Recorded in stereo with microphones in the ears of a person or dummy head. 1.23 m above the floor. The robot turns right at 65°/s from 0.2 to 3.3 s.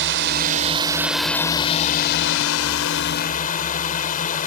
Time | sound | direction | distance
0.0 | a drone | 65° right | ?